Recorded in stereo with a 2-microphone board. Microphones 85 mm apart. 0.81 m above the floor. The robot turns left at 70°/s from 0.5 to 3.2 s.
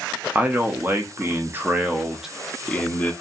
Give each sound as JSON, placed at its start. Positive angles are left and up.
{"t": 0.3, "sound": "a man speaking", "side_deg": -20, "distance_m": 0.5}